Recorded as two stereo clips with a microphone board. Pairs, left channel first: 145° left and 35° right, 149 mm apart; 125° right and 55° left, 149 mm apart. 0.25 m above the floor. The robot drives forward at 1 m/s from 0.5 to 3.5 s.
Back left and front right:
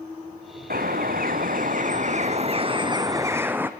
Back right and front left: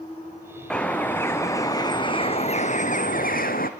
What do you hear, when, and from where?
0.7 s a bird: 40° right, 3 m; by 3.7 s 110° right, 1.9 m